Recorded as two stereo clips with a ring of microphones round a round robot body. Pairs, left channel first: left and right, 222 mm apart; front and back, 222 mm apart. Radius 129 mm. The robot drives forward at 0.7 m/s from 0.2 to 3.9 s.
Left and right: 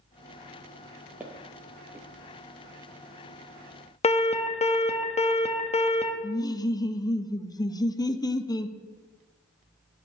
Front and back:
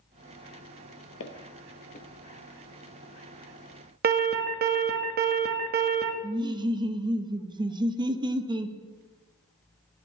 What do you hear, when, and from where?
1.2 s footsteps: 10° right, 1.2 m; by 2.1 s 20° right, 0.7 m
4.0 s an alarm: 145° left, 1.0 m
6.2 s laughter: 140° left, 0.7 m